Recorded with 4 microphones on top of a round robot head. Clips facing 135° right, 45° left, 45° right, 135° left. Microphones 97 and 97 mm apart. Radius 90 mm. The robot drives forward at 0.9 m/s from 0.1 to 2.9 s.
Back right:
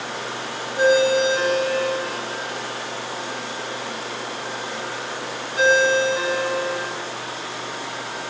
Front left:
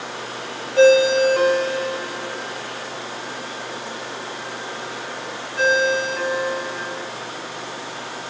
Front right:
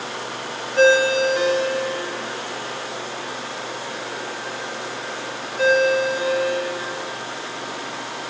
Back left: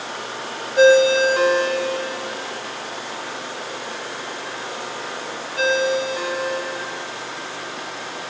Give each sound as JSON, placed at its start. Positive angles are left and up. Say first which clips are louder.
{"t": 0.8, "sound": "a ringtone", "louder": "front left 4 dB, back left 3 dB", "azimuth_deg": 55, "distance_m": 1.0}